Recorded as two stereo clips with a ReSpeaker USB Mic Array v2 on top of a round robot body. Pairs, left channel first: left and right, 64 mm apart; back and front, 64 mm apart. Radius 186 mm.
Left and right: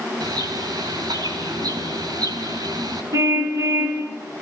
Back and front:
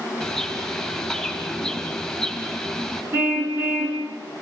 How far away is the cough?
No cough in this recording.